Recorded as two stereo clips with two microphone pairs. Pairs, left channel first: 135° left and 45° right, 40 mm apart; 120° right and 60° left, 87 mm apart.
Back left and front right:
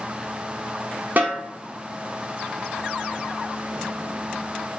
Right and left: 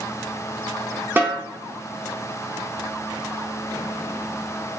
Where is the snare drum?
5° right, 0.6 m.